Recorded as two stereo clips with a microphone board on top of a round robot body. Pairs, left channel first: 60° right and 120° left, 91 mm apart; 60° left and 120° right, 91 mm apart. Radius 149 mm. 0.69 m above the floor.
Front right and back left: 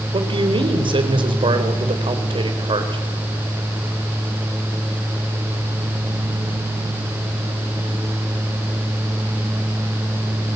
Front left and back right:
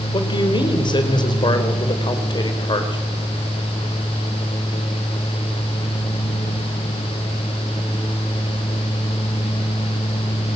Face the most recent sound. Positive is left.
turn(degrees=95)